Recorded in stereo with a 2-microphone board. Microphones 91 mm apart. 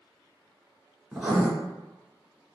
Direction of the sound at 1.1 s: 10° right (ahead or behind).